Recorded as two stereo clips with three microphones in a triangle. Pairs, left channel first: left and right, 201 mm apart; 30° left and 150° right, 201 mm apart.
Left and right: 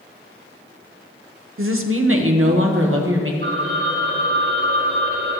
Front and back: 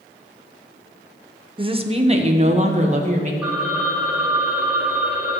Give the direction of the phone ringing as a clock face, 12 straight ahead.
2 o'clock.